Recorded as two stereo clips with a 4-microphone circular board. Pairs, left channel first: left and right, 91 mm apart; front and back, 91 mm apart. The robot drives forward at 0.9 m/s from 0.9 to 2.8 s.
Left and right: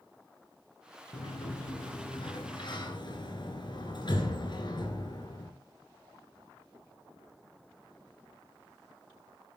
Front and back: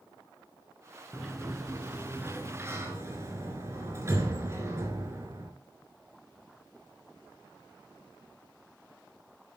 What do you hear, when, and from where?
1.1 s a sliding door: 85° left, 2 m; by 5.5 s 120° left, 2.5 m